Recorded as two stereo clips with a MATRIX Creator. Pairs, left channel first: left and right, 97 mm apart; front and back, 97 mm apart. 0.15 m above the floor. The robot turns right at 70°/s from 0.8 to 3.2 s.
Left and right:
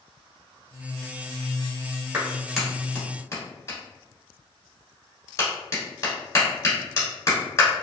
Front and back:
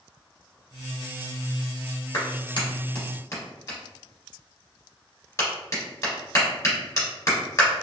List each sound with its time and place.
2.1 s a clap: 35° right, 1.6 m; by 7.7 s 40° left, 1.6 m